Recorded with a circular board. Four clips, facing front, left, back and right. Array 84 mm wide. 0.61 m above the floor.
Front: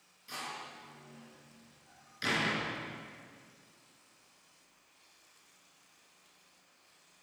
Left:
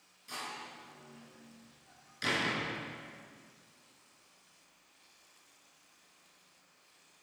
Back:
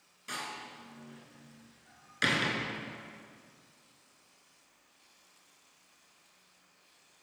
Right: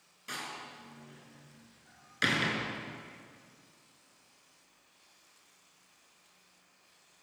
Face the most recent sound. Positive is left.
turn(degrees=-130)